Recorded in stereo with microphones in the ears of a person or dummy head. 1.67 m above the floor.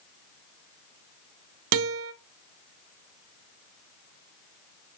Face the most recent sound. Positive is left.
turn(degrees=-75)  # may be behind; listen again after turning